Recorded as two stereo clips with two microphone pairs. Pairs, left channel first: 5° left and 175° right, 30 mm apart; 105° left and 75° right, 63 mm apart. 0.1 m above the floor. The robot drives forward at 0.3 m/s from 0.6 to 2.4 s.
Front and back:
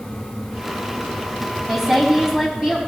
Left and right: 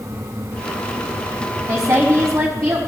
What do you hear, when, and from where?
1.7 s a woman speaking: 105° right, 4 m; by 2.8 s 110° right, 4 m